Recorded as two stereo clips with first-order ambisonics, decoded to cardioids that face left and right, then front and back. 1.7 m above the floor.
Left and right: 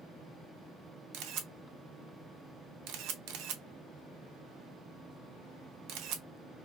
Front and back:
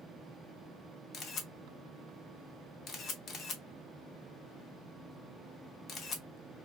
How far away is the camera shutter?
About 0.6 m.